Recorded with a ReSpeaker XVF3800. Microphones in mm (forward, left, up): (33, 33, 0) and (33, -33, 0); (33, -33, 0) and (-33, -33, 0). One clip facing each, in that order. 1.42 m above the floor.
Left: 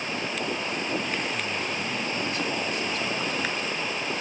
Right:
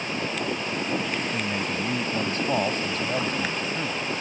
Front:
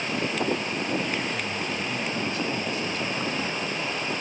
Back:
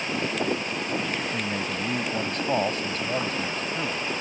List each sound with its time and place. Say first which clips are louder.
1.3 s a man speaking: right 2 dB, back 1 dB; 145° right